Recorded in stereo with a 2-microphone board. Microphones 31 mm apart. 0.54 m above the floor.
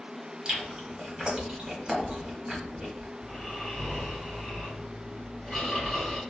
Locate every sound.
0.5 s chewing: 30° right (ahead or behind), 1.0 m
3.2 s snoring: 5° left (ahead or behind), 1.8 m